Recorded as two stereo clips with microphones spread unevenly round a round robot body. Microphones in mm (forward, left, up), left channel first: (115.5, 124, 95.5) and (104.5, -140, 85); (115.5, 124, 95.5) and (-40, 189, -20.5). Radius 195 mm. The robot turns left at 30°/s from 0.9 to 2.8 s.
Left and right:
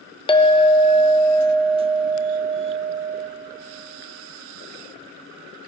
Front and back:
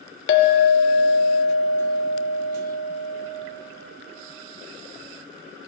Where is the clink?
15° left, 0.7 m; by 3.3 s 40° right, 0.7 m.